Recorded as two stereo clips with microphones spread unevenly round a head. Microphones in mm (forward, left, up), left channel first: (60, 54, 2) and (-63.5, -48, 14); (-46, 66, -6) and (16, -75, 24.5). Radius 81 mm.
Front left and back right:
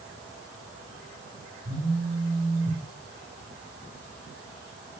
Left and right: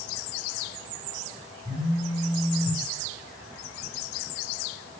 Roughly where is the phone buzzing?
Right.